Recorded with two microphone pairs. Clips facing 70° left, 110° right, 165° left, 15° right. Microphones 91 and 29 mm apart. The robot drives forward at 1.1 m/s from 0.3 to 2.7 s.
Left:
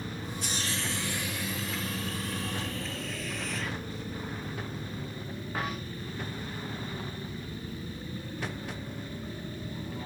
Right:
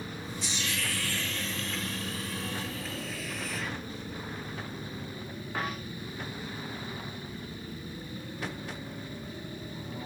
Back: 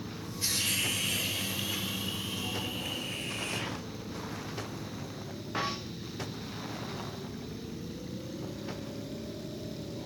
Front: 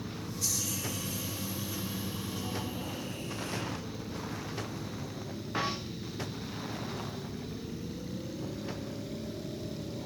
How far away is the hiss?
About 0.7 m.